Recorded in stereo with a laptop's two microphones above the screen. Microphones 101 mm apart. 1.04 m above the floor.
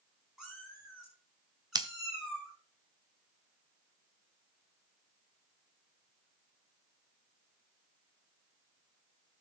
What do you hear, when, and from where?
0.4 s a cat meowing: 5° right (ahead or behind), 5.5 m
1.8 s scissors: 45° right (ahead or behind), 0.8 m